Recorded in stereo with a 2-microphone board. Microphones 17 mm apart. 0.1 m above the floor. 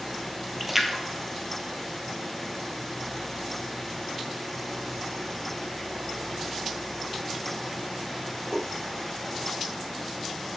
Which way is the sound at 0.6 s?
10° right (ahead or behind).